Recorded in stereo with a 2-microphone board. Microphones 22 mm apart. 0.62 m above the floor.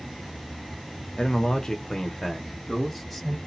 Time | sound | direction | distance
1.2 | a man speaking | 40° left (ahead or behind) | 0.9 m